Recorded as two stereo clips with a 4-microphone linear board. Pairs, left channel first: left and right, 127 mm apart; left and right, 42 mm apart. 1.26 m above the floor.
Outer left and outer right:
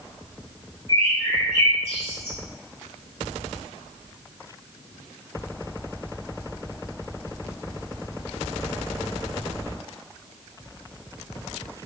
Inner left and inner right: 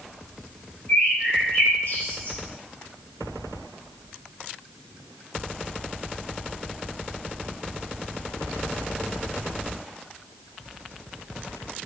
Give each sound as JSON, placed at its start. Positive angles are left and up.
{"t": 0.9, "sound": "a bird", "side_deg": 50, "distance_m": 1.7}